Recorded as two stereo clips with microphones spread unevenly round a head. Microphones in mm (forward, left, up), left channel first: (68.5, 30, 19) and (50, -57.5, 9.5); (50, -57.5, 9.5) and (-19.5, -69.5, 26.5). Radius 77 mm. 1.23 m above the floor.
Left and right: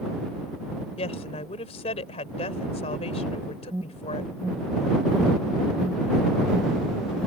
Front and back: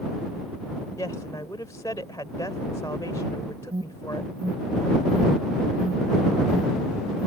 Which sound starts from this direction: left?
A woman speaking, at 1.0 s.